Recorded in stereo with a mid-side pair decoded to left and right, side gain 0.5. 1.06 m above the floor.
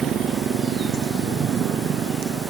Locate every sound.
0.0 s a motorcycle: 55° right